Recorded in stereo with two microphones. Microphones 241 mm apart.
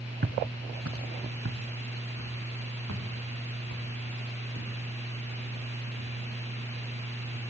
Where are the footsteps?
45° right (ahead or behind), 0.6 m; by 7.5 s 80° right, 4.5 m.